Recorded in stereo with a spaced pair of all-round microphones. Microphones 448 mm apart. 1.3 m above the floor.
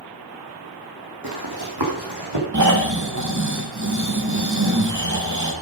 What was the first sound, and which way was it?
Running footsteps, 50° right (ahead or behind).